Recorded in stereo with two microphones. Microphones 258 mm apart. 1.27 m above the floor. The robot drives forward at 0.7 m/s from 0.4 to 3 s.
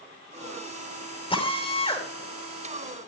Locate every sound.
1.3 s a drill: 20° left (ahead or behind), 6 m